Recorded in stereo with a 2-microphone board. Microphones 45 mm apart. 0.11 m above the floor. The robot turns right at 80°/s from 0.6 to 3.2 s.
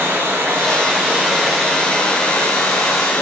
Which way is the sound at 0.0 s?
70° right.